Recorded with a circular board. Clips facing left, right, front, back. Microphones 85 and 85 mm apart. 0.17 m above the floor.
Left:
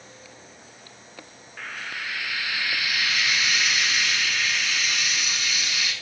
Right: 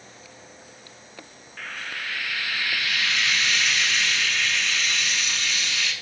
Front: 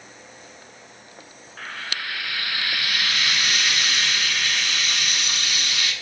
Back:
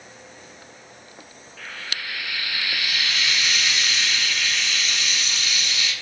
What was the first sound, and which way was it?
Frying, 10° left.